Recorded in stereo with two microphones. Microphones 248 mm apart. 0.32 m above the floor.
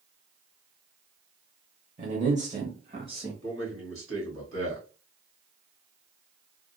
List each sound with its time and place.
2.0 s a man speaking: 30° right (ahead or behind), 1.1 m; by 3.3 s 20° right (ahead or behind), 1.4 m
3.4 s a man speaking: 55° right (ahead or behind), 2.5 m